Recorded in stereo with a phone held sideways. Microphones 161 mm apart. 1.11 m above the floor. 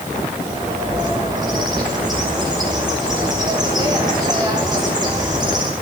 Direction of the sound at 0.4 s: 25° right (ahead or behind).